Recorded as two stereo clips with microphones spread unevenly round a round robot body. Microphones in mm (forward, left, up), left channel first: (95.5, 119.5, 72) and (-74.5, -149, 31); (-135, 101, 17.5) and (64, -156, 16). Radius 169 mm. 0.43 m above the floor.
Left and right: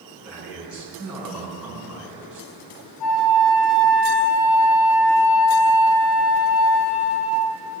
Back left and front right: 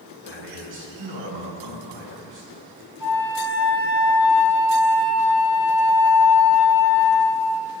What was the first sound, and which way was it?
A man speaking, 35° right.